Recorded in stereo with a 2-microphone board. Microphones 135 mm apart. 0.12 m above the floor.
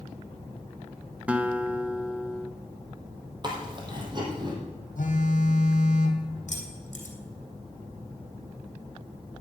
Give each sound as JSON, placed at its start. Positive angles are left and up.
{"t": 1.3, "sound": "a guitar", "side_deg": -10, "distance_m": 0.7}
{"t": 3.4, "sound": "chewing", "side_deg": -35, "distance_m": 3.0}
{"t": 5.0, "sound": "a phone buzzing", "side_deg": 70, "distance_m": 2.5}
{"t": 6.5, "sound": "keys jangling", "side_deg": 60, "distance_m": 3.0}